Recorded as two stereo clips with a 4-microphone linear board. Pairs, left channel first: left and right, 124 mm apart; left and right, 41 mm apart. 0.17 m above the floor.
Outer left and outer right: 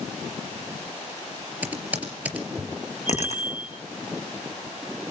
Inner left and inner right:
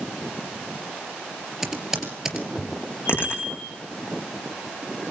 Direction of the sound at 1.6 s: 10° right (ahead or behind).